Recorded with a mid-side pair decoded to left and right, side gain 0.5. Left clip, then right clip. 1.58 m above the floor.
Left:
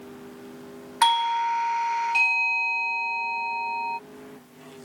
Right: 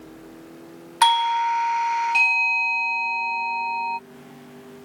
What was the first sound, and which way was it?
A doorbell, 20° right.